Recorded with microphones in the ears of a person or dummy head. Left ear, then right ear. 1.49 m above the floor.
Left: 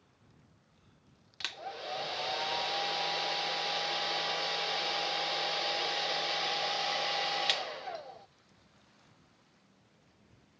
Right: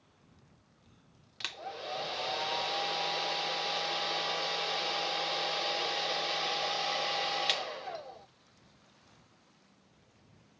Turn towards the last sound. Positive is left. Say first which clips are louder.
# even
turn(degrees=10)  # may be behind; listen again after turning